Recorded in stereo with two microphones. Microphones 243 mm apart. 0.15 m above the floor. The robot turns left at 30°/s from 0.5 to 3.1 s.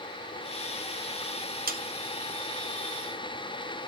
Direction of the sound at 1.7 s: 40° right (ahead or behind).